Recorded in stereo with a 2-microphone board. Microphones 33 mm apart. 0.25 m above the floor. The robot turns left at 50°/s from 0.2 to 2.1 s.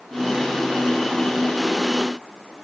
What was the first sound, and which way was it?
Only background noise.